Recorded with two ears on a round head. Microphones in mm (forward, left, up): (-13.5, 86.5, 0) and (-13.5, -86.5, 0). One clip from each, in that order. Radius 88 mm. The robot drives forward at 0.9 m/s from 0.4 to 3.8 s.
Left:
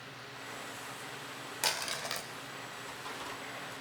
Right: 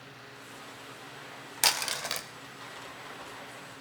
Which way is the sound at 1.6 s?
35° right (ahead or behind).